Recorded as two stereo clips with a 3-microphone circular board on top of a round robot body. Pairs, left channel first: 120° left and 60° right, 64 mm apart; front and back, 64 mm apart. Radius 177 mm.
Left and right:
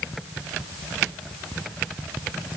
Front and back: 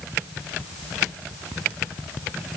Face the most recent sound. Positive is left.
No sound to turn to.